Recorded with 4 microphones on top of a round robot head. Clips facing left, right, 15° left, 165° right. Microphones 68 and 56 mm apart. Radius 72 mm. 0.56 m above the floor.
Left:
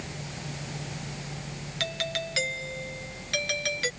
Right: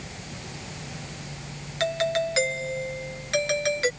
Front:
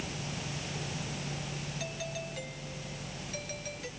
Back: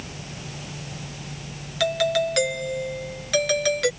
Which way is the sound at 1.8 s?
155° right.